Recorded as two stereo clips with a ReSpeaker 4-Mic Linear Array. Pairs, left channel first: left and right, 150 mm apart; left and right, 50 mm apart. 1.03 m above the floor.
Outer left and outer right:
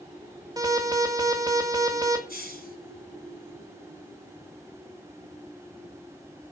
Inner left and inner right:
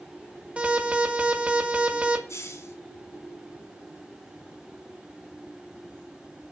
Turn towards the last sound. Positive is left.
turn(degrees=85)